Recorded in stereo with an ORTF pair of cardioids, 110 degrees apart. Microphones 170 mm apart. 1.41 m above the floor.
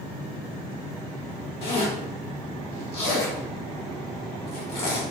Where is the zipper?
35° left, 1.5 m.